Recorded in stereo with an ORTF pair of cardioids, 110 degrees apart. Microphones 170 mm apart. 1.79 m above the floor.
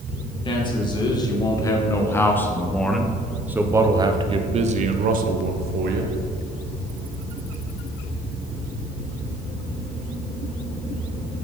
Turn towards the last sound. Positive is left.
turn(degrees=-75)